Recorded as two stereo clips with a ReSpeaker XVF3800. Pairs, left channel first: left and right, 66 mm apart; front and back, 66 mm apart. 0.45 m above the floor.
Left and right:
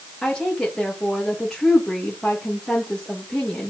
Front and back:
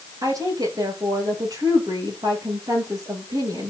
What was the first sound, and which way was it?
A woman speaking, 170° left.